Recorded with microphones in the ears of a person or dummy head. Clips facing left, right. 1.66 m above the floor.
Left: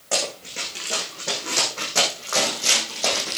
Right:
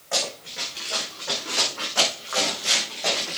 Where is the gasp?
No gasp in this recording.